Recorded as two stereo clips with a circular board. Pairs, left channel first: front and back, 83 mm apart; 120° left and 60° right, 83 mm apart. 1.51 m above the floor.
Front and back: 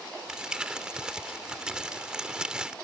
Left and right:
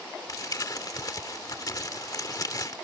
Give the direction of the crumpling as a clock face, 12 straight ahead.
9 o'clock.